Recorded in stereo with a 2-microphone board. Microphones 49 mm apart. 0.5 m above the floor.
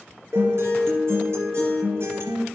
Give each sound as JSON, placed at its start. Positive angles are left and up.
{"t": 0.3, "sound": "a guitar", "side_deg": -65, "distance_m": 2.5}